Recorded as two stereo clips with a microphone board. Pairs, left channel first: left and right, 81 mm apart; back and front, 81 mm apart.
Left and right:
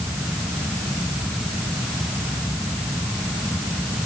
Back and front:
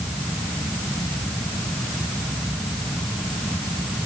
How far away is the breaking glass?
I don't hear breaking glass.